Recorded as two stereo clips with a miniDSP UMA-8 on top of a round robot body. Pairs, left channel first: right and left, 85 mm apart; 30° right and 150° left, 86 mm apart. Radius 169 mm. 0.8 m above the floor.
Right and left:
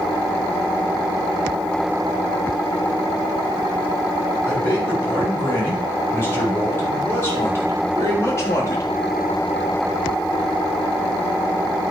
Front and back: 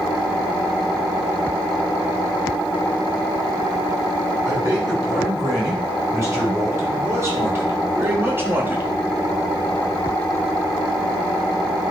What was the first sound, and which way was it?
A man speaking, 155° right.